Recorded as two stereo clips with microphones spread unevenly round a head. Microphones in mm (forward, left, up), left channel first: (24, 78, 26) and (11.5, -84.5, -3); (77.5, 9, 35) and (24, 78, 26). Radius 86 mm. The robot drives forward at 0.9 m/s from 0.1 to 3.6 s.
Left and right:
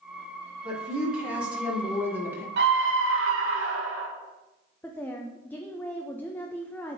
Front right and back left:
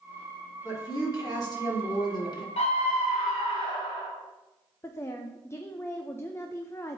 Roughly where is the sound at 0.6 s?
Ahead.